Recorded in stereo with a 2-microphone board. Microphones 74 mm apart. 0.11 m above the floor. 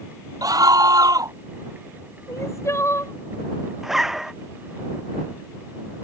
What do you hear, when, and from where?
0.4 s a scream: 55° right (ahead or behind)
2.3 s crying: 40° left (ahead or behind)
3.8 s a zipper: 5° right (ahead or behind)